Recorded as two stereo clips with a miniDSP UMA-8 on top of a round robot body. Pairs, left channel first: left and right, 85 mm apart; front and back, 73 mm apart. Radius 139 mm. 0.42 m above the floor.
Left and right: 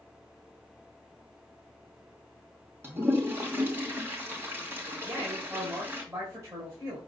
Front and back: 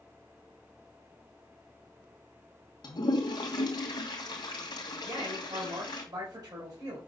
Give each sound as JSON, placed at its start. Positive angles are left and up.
{"t": 2.8, "sound": "a toilet flushing", "azimuth_deg": -25, "distance_m": 2.5}
{"t": 5.0, "sound": "a man speaking", "azimuth_deg": -145, "distance_m": 4.0}